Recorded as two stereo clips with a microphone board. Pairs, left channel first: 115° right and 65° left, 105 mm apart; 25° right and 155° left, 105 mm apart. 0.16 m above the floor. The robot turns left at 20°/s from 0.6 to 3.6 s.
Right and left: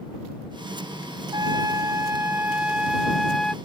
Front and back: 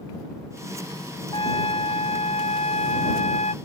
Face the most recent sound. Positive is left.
turn(degrees=-30)